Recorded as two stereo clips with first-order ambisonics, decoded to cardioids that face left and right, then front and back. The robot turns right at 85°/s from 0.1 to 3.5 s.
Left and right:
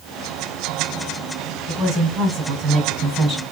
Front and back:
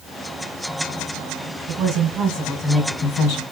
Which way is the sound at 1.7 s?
160° right.